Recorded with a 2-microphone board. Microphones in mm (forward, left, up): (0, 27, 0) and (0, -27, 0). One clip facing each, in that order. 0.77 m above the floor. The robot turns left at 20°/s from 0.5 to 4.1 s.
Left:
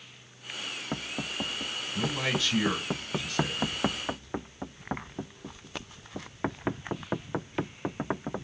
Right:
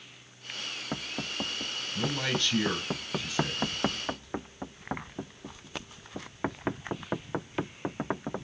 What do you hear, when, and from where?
1.9 s a man speaking: 15° left, 2.5 m; by 3.6 s 15° right, 2.5 m